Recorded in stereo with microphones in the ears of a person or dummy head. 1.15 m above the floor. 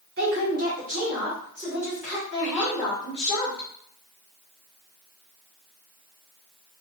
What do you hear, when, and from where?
0.2 s a woman speaking: 55° right (ahead or behind), 1.3 m; by 3.7 s 20° left (ahead or behind), 1.6 m